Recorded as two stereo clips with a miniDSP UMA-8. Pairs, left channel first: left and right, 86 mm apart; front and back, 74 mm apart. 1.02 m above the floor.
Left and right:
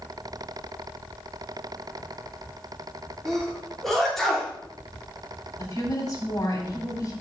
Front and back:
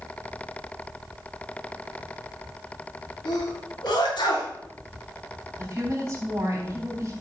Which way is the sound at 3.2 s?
5° left.